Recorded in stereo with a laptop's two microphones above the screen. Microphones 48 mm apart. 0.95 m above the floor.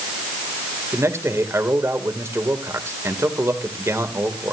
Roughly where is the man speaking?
Right.